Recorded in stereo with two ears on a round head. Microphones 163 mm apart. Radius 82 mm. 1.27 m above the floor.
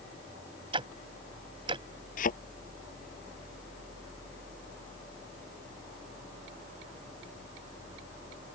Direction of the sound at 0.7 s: 30° right (ahead or behind).